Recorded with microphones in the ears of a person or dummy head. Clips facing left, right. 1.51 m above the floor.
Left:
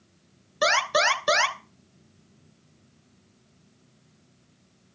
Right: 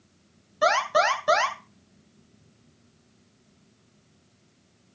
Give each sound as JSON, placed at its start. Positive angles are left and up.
{"t": 0.6, "sound": "an alarm", "side_deg": 65, "distance_m": 1.7}